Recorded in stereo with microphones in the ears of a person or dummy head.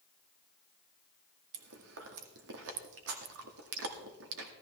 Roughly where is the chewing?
Right.